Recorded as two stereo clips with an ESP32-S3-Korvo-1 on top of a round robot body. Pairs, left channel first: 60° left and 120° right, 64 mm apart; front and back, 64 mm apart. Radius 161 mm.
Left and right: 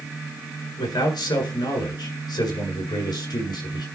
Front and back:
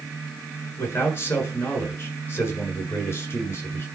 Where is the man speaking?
55° left, 8 m.